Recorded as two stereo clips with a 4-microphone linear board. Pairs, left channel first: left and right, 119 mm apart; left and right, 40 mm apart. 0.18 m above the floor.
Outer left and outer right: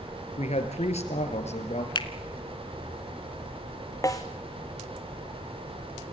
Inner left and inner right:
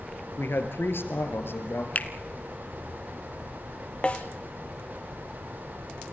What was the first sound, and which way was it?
A man speaking, 70° left (ahead or behind).